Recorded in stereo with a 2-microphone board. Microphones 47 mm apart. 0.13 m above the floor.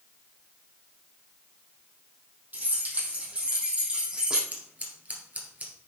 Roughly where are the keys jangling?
Right.